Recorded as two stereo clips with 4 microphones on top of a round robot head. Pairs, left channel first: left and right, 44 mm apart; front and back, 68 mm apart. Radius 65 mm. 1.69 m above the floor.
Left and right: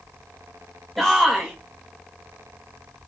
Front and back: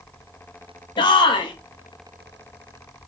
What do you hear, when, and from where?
1.0 s a shout: straight ahead, 2 m